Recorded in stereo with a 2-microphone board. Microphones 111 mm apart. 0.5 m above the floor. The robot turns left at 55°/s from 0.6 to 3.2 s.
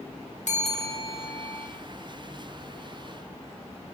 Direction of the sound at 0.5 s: 85° left.